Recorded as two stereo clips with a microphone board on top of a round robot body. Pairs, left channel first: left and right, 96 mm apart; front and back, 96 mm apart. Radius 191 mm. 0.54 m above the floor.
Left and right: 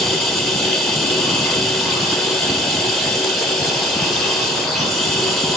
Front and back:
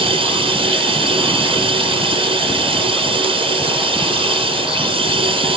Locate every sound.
0.0 s running water: straight behind, 1.4 m